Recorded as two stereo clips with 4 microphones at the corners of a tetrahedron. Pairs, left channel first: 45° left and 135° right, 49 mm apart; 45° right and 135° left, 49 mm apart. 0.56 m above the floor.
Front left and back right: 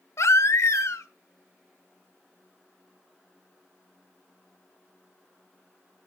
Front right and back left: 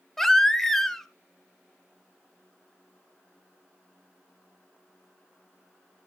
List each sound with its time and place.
0.2 s a baby crying: 40° left, 1.1 m